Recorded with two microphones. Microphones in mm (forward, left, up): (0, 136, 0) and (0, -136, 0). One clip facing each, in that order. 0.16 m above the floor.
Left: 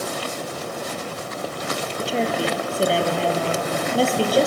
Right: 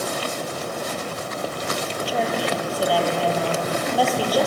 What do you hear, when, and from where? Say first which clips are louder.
2.0 s a woman speaking: left 2 dB; 25° left (ahead or behind), 4 m